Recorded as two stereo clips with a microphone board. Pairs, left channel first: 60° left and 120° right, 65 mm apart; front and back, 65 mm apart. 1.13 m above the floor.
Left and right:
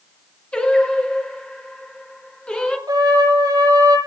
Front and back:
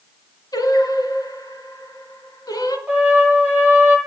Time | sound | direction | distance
0.5 | singing | 15° right | 4 m
2.9 | a trumpet | 100° right | 9.5 m